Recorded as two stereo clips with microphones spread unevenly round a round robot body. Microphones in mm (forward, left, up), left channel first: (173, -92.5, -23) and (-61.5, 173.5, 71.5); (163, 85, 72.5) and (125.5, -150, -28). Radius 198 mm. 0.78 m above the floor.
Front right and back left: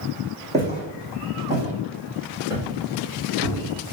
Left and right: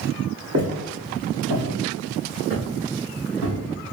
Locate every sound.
0.5 s footsteps: 165° right, 1.8 m; by 3.9 s 140° right, 3.5 m